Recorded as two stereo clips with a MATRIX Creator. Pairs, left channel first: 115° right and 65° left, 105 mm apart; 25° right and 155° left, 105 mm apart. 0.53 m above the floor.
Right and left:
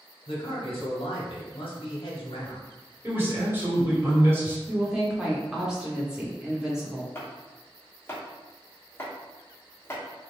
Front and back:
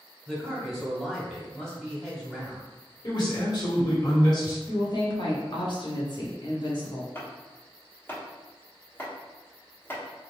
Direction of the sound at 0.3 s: 105° right.